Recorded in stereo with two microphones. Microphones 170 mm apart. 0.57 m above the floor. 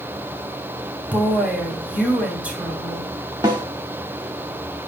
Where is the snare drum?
25° right (ahead or behind), 1.2 m.